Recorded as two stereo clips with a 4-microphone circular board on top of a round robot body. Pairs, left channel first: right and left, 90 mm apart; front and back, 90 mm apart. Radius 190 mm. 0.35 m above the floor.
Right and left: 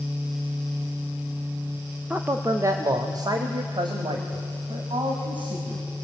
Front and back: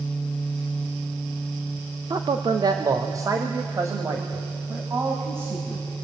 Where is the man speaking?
160° left, 1.4 m; by 5.8 s 115° left, 4.5 m.